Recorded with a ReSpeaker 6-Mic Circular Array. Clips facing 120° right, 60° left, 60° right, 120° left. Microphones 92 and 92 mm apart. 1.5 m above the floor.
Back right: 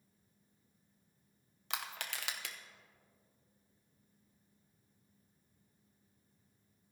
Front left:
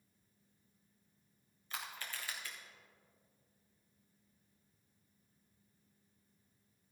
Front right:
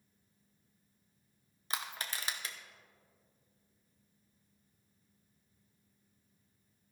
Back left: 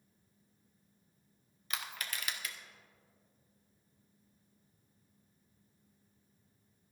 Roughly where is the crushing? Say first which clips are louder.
Back right 3 dB, front right 2 dB; behind right.